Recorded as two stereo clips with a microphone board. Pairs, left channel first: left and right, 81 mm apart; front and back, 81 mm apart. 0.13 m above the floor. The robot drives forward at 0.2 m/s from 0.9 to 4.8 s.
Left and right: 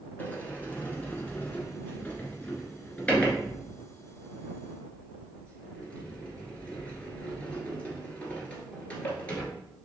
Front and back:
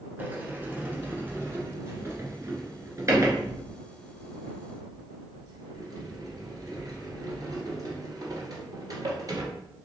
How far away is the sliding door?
About 1.1 m.